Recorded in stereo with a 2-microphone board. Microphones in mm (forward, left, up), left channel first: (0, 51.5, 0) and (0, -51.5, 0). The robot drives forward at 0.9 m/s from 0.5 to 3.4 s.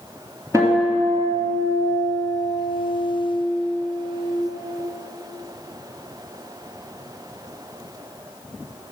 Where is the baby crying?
No baby crying in this recording.